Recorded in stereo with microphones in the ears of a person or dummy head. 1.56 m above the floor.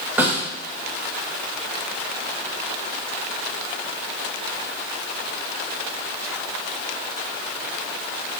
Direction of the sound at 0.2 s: 10° right (ahead or behind).